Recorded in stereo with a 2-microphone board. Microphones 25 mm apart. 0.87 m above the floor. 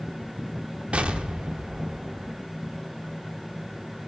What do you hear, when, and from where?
0.9 s an explosion: 50° right (ahead or behind), 0.8 m